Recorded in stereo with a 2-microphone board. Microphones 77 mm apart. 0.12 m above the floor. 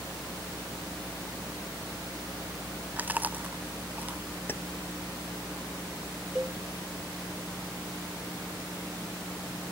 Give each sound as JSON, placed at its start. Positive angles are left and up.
{"t": 3.0, "sound": "chewing", "side_deg": -20}
{"t": 4.5, "sound": "keys jangling", "side_deg": 30}
{"t": 6.3, "sound": "a cowbell", "side_deg": -20}